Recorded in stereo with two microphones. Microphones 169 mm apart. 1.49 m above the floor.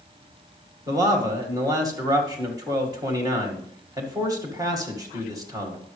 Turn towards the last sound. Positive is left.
turn(degrees=-20)  # may be behind; listen again after turning